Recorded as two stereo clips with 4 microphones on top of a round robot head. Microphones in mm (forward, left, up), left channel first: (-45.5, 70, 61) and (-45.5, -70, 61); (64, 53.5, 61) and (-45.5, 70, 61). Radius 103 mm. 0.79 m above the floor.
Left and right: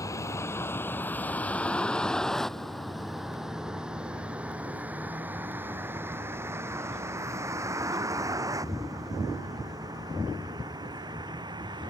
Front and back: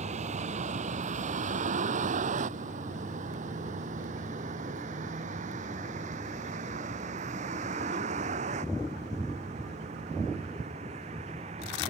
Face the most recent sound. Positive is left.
turn(degrees=-150)